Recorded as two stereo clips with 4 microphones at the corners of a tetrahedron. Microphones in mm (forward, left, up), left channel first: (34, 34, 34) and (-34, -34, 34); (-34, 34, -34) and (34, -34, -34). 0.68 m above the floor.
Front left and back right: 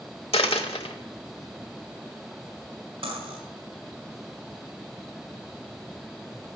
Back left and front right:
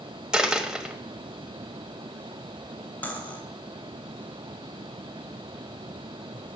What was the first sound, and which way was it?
A dropped coin, 35° left.